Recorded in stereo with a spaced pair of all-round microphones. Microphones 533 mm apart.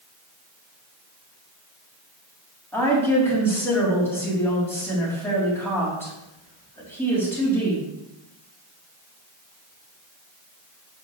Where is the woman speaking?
5° left (ahead or behind), 3.5 m.